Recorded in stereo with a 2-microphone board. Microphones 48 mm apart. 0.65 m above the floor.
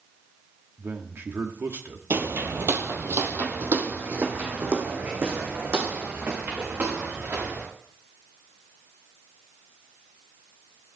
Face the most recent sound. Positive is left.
turn(degrees=-45)  # may be behind; listen again after turning